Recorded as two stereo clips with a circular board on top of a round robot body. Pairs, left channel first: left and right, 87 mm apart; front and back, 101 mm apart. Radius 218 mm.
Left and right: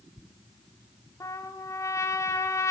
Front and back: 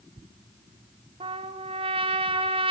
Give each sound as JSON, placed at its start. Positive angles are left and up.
{"t": 1.2, "sound": "a trumpet", "azimuth_deg": 150, "distance_m": 1.2}